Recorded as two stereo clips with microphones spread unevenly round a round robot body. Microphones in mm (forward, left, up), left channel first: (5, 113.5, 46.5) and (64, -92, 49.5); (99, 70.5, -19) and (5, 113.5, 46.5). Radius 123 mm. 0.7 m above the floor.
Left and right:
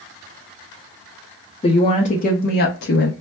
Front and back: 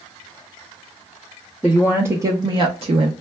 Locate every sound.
1.6 s a woman speaking: 45° left, 0.8 m; by 3.1 s 120° left, 0.7 m